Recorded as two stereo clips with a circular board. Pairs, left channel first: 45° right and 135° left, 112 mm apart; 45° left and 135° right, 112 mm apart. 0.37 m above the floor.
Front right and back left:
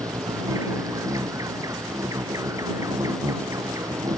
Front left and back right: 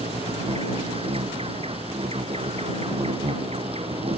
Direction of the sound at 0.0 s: 165° right.